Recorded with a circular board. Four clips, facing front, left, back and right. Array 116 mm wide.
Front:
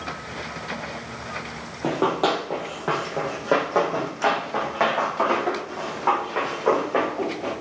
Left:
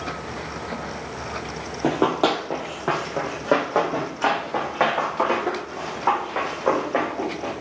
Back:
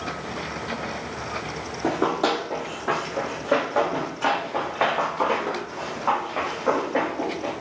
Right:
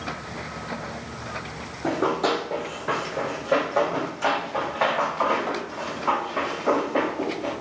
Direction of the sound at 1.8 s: 75° left.